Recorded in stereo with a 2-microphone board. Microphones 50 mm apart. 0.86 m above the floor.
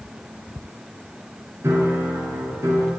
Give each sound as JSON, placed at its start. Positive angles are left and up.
{"t": 1.6, "sound": "a piano", "side_deg": -55, "distance_m": 7.5}